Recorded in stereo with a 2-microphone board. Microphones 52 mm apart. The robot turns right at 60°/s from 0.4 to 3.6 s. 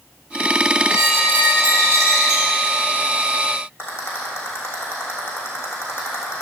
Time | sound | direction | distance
0.9 | a squeak | 125° right | 1.8 m
3.8 | a rattle | 50° left (ahead or behind) | 3.5 m